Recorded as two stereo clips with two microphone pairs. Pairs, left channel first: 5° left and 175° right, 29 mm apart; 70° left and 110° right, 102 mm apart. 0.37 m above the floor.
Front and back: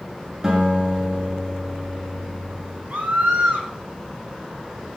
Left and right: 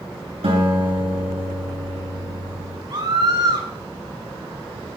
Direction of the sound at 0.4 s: 105° right.